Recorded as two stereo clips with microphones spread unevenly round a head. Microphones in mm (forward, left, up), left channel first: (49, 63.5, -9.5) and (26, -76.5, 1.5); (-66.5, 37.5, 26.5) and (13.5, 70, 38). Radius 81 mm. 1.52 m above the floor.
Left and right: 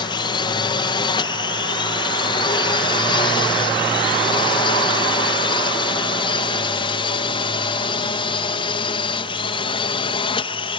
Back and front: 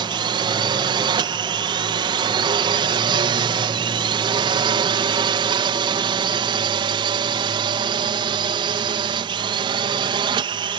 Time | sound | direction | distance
0.0 | a drone | 30° left | ?